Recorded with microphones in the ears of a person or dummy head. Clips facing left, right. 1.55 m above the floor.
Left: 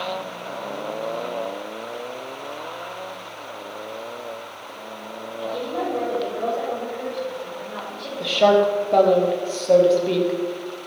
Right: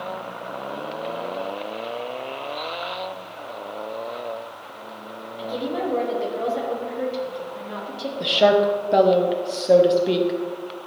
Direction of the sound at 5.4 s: 70° right (ahead or behind).